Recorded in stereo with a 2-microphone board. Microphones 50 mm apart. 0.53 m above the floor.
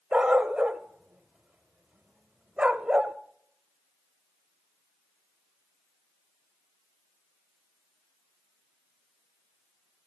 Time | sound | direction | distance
0.1 | a dog barking | 20° right (ahead or behind) | 0.6 m